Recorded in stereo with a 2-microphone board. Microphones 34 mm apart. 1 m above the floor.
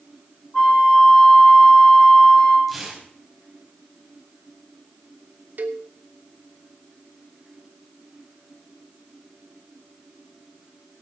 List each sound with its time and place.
0.5 s a flute: 20° left (ahead or behind), 3 m
2.7 s tearing paper: centre (ahead or behind), 4 m
5.6 s a cowbell: 65° right (ahead or behind), 1.2 m